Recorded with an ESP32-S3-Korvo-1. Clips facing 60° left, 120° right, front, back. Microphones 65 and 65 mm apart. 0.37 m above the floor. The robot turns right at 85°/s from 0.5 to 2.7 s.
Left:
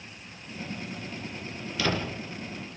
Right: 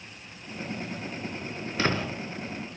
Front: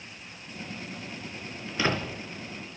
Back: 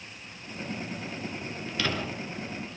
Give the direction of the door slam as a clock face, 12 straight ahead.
3 o'clock.